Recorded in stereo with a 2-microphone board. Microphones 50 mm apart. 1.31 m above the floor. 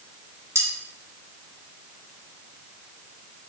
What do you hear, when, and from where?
0.6 s cutlery clinking: 75° right (ahead or behind), 2.5 m